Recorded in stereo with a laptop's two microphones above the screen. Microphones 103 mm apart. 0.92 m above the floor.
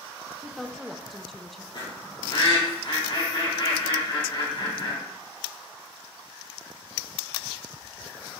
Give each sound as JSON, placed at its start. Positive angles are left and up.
{"t": 0.4, "sound": "a woman speaking", "side_deg": 0, "distance_m": 0.6}
{"t": 1.7, "sound": "a bird", "side_deg": 55, "distance_m": 3.0}